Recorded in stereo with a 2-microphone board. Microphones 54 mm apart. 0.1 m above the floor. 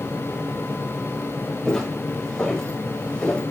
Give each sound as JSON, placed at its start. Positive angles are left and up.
{"t": 1.6, "sound": "footsteps", "side_deg": 10, "distance_m": 5.5}